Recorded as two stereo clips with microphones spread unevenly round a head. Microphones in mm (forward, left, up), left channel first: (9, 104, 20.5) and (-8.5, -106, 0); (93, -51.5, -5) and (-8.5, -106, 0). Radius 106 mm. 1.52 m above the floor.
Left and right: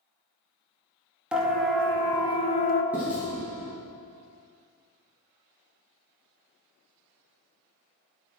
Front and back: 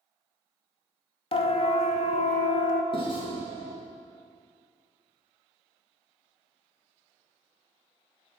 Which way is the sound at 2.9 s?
10° right.